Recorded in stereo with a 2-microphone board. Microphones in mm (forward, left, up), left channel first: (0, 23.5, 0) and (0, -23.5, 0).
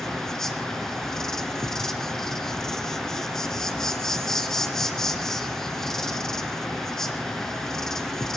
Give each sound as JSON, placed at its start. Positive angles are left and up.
{"t": 0.0, "sound": "an insect", "side_deg": 10, "distance_m": 1.7}